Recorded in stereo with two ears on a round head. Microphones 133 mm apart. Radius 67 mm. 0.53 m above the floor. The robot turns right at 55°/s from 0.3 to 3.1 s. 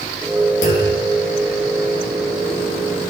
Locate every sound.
0.6 s a clunk: 50° left (ahead or behind), 6.5 m; by 1.0 s 70° left (ahead or behind), 6.5 m